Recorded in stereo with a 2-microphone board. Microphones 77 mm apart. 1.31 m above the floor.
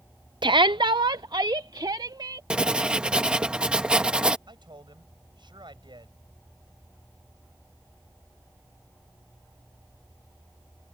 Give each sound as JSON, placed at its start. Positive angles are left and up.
{"t": 0.4, "sound": "a shout", "side_deg": -75}
{"t": 2.5, "sound": "writing", "side_deg": -10}
{"t": 4.5, "sound": "a man speaking", "side_deg": -80}